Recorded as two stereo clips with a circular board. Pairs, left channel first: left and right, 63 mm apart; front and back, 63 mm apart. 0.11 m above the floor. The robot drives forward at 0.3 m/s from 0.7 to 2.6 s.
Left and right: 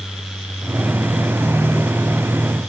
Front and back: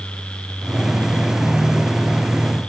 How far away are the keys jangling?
I don't hear keys jangling.